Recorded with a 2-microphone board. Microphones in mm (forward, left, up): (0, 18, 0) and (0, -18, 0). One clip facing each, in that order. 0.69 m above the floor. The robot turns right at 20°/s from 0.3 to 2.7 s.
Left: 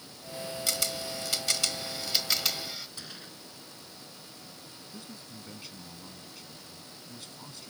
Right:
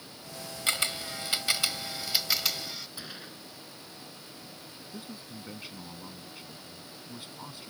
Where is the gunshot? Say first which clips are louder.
Right 2 dB; 15° right (ahead or behind).